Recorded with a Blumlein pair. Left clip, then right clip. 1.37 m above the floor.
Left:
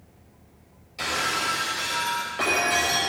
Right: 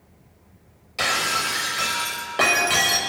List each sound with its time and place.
1.0 s breaking glass: 65° right, 4.5 m